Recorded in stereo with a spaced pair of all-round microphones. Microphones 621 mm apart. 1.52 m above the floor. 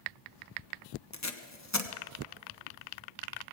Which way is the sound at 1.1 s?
25° left (ahead or behind).